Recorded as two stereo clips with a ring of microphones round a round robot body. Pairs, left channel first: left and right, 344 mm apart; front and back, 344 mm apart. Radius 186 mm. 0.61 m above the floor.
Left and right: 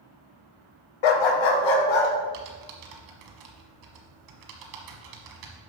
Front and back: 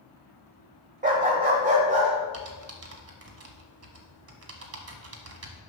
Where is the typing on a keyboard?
130° right, 1.4 m.